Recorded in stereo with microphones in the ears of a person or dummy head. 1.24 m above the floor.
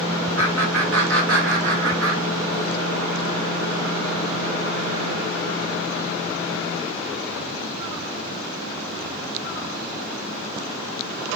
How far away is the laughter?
About 0.9 m.